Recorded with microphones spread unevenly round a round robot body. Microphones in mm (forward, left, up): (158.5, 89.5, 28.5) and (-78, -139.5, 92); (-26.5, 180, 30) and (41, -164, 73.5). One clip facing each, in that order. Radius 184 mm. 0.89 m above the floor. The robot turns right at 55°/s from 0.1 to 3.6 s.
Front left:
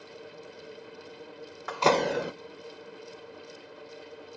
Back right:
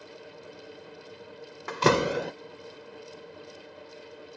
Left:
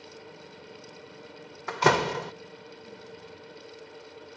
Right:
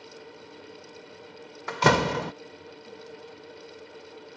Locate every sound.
1.7 s a door slam: 70° right; by 2.3 s 35° right